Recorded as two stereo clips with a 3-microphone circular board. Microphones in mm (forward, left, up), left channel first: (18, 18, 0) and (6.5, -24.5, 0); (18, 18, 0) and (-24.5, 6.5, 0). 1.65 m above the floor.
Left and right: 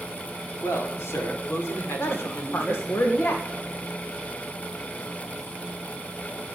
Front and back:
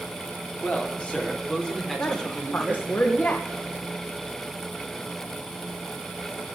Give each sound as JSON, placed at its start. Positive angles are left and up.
{"t": 0.6, "sound": "a man speaking", "azimuth_deg": 70, "distance_m": 4.0}
{"t": 2.0, "sound": "a woman speaking", "azimuth_deg": 55, "distance_m": 2.0}